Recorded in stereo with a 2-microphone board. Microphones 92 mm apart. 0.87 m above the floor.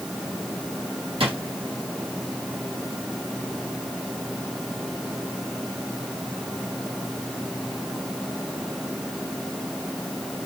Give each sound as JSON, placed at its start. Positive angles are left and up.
{"t": 1.2, "sound": "a drawer", "side_deg": -85, "distance_m": 2.0}